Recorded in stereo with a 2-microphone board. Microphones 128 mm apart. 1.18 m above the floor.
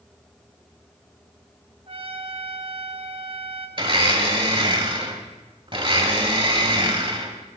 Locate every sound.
1.9 s a trumpet: 45° right (ahead or behind), 0.9 m
3.8 s a blender: 45° right (ahead or behind), 1.2 m